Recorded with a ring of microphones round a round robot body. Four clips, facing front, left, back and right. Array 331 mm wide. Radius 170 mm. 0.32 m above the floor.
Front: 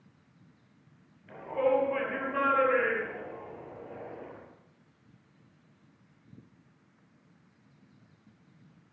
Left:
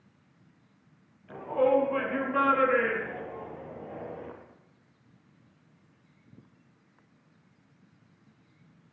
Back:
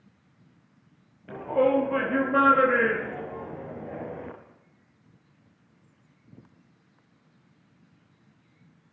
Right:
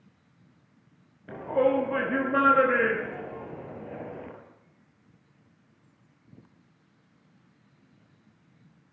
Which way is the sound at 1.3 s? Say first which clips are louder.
Even, back 5 dB; 130° right.